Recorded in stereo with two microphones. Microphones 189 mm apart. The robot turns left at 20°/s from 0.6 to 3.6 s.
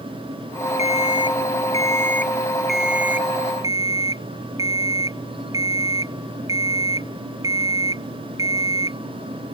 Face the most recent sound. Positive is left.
turn(degrees=-20)